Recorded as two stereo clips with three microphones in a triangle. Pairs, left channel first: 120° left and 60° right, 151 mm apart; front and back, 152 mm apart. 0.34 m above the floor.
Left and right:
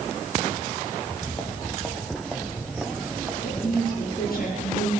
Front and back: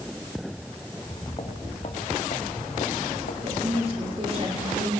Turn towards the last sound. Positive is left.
turn(degrees=130)